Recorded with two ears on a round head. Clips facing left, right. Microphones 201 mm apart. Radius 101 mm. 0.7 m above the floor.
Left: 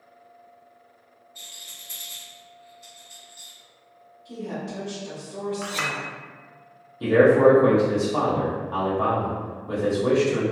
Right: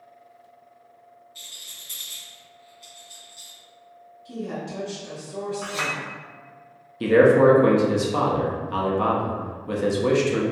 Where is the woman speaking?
25° right (ahead or behind), 1.3 m.